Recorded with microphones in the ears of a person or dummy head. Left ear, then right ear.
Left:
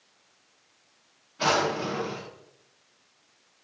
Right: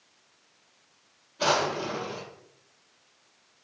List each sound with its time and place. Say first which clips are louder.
1.4 s a drawer: left 1 dB; 40° left (ahead or behind), 1.1 m